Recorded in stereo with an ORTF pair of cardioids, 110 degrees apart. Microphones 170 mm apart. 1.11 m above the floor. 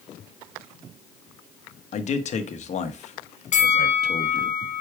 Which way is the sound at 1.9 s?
45° left.